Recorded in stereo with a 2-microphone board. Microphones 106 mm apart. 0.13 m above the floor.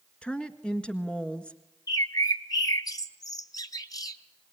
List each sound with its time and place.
0.2 s a woman speaking: 10° left (ahead or behind), 1.5 m
1.9 s a bird: 35° left (ahead or behind), 0.9 m